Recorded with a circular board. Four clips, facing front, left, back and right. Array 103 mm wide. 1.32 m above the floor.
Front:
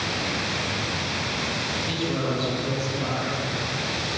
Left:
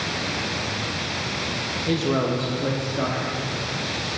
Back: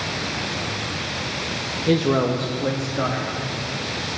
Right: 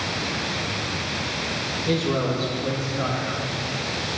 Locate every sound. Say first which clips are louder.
1.9 s a man speaking: left 1 dB, back 10 dB; straight behind, 0.9 m; by 4.1 s 140° left, 3.5 m